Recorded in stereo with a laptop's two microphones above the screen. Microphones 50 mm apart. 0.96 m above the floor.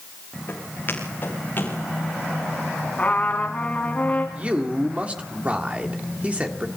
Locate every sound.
0.5 s footsteps: 45° left (ahead or behind), 6 m; by 1.8 s 40° left (ahead or behind), 6.5 m
3.0 s a trumpet: 30° left (ahead or behind), 2.5 m
4.3 s a man speaking: 30° right (ahead or behind), 1.8 m